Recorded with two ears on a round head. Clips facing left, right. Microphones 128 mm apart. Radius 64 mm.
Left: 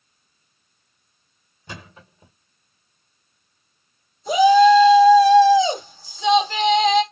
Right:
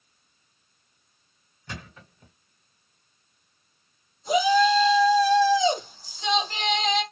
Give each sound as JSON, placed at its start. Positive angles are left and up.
{"t": 1.7, "sound": "a thud", "side_deg": 20, "distance_m": 1.4}
{"t": 4.3, "sound": "a shout", "side_deg": 65, "distance_m": 2.5}